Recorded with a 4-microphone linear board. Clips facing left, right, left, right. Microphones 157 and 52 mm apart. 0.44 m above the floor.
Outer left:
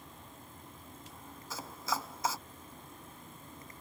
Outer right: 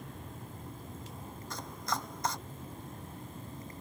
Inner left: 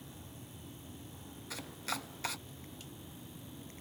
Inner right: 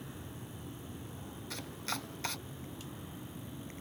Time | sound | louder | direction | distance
0.0 | an aircraft | outer right 6 dB, inner right 5 dB | 60° right (ahead or behind) | ?
1.5 | chopping | even, even | 5° left (ahead or behind) | ?